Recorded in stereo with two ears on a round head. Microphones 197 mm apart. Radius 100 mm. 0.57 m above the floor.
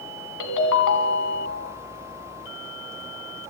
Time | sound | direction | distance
0.4 | a ringtone | 70° left (ahead or behind) | 3 m